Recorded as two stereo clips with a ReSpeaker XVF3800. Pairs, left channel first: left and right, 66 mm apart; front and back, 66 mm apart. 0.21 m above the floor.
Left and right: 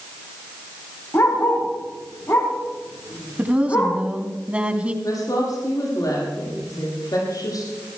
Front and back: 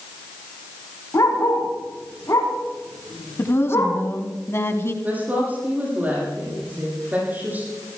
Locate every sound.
1.1 s a dog barking: 40° left, 6 m
3.4 s a woman speaking: 25° right, 1.8 m
5.0 s a woman speaking: 115° left, 8 m